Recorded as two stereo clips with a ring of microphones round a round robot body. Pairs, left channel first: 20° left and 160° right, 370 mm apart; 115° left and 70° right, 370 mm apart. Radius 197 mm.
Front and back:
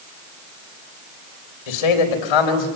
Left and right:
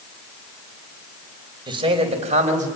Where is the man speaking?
10° left, 4 m; by 2.7 s 5° left, 4.5 m.